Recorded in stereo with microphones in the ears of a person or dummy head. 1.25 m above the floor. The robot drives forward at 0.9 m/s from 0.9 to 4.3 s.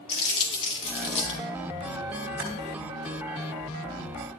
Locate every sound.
0.1 s crumpling: 30° left (ahead or behind), 3.5 m; by 1.4 s 35° left (ahead or behind), 3 m
2.4 s typing on a keyboard: 40° right (ahead or behind), 1.8 m